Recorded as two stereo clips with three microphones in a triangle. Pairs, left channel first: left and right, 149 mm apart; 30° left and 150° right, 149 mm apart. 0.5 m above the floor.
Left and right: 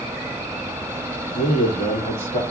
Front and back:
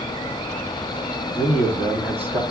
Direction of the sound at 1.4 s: 135° left.